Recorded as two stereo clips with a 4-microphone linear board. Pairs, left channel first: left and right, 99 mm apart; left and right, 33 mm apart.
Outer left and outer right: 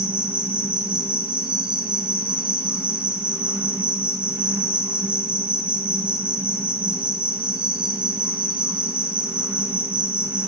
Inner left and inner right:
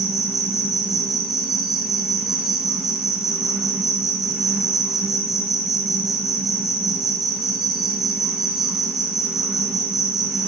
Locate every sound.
0.0 s an insect: 10° right (ahead or behind), 2.5 m